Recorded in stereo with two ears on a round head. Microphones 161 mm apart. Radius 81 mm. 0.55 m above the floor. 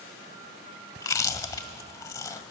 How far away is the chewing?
About 0.7 m.